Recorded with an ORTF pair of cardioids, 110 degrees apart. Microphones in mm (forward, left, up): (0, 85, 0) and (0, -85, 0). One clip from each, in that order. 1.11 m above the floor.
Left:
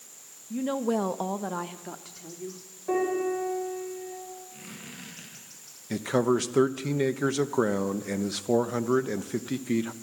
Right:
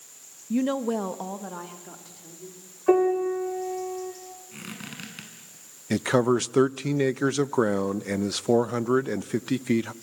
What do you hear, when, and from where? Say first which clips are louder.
0.5 s a woman speaking: right 2 dB; 45° right, 0.6 m; by 2.6 s 40° left, 3 m
2.9 s a piano: right 6 dB; 60° right, 5 m
4.5 s a squeak: right 4 dB; 55° right, 7 m
5.9 s a man speaking: right 3 dB; 35° right, 0.6 m